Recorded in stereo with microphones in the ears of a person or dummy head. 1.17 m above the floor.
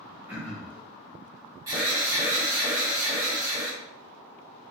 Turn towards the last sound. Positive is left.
turn(degrees=-20)  # may be behind; listen again after turning